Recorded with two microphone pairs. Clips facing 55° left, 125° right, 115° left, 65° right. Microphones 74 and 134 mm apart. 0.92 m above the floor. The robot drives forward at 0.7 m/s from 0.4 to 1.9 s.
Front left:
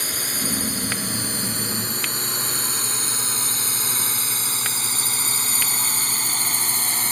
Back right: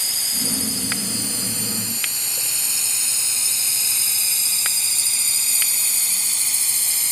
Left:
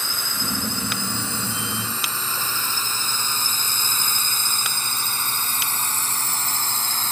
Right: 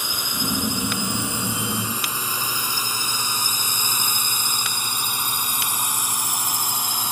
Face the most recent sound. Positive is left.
turn(degrees=15)